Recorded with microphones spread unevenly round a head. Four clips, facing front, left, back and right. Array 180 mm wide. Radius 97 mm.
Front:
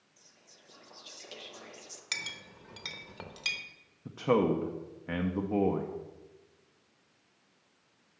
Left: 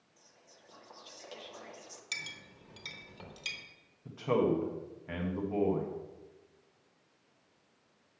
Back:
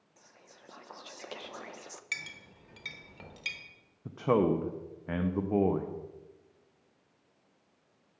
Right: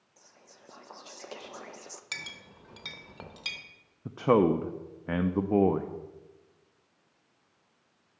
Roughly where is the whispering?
Behind right.